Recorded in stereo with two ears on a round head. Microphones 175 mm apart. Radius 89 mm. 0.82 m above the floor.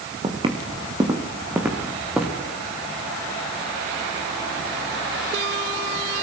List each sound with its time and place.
0.2 s footsteps: 30° right (ahead or behind), 3 m; by 2.4 s centre (ahead or behind), 3.5 m